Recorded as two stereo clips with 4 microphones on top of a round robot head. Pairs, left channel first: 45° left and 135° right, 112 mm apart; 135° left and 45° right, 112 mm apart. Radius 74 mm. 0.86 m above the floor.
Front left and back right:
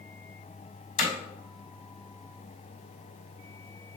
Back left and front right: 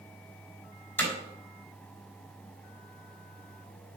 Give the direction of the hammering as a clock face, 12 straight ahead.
10 o'clock.